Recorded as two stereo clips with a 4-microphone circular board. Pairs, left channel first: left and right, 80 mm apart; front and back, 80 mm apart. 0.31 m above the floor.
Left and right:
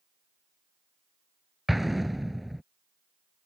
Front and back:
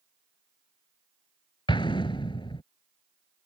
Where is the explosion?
Straight ahead.